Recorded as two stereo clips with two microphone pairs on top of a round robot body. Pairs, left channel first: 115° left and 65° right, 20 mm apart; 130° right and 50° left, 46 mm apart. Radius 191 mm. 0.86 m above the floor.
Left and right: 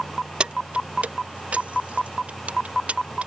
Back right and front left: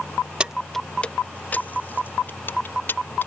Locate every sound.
0.4 s keys jangling: 20° right; by 3.3 s 85° right